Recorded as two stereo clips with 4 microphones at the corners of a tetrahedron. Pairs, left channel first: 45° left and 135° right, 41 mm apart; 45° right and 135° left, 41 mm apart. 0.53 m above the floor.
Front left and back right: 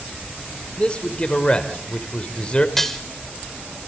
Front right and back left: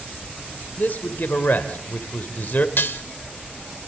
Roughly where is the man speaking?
Ahead.